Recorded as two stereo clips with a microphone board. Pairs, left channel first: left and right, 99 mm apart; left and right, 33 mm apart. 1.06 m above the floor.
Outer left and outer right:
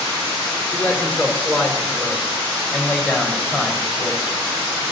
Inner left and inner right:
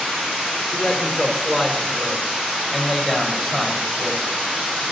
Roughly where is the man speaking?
Centre.